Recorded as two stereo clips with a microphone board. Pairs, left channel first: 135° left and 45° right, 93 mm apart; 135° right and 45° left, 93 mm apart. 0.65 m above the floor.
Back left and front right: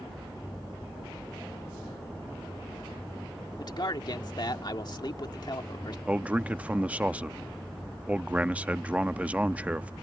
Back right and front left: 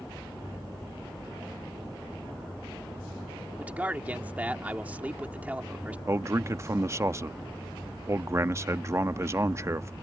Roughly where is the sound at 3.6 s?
Behind left.